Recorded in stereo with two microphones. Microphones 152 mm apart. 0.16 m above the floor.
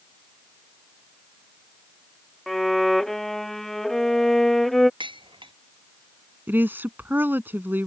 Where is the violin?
Centre (ahead or behind).